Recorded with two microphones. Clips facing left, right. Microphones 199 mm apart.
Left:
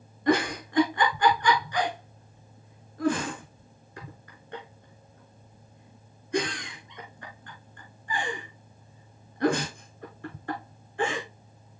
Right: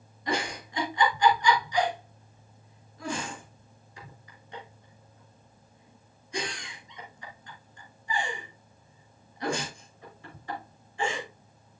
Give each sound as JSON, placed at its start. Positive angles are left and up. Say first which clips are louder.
{"t": 0.3, "sound": "a giggle", "louder": "left 8 dB", "side_deg": 55, "distance_m": 3.5}